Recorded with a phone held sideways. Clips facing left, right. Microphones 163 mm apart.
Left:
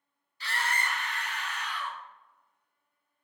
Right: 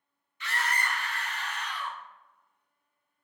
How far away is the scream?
About 0.5 m.